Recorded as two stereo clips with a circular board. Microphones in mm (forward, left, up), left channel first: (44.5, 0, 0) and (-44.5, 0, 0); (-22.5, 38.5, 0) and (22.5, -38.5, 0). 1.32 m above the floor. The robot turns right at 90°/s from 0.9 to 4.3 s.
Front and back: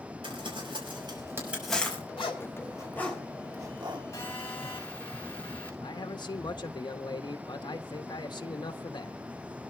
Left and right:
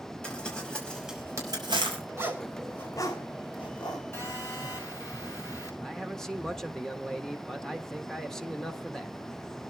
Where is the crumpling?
160° right, 5 m; by 2.0 s 60° right, 5 m.